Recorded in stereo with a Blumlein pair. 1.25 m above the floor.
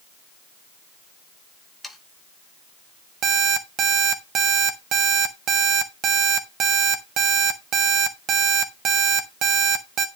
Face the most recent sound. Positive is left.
turn(degrees=-30)